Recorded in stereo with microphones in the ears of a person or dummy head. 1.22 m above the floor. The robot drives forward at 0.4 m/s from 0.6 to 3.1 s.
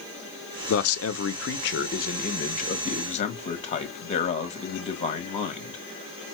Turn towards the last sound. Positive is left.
turn(degrees=35)  # may be behind; listen again after turning